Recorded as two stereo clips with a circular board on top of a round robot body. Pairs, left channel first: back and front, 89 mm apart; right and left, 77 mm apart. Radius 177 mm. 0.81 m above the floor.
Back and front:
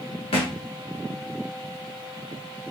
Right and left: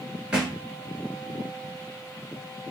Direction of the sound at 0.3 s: 170° left.